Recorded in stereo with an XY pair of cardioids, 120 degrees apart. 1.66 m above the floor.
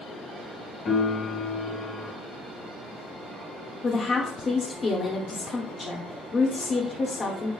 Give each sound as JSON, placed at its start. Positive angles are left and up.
{"t": 0.8, "sound": "a piano", "azimuth_deg": 40, "distance_m": 1.5}
{"t": 3.8, "sound": "a woman speaking", "azimuth_deg": 35, "distance_m": 0.8}